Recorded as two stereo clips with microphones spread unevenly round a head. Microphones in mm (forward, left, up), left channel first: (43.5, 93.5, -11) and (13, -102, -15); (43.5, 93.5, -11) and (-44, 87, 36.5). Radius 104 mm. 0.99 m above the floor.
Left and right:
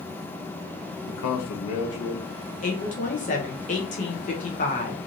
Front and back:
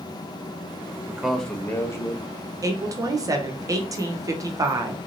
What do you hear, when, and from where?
1.1 s a man speaking: 105° left, 0.7 m; by 2.2 s 55° left, 1.3 m
2.6 s a woman speaking: 110° left, 0.6 m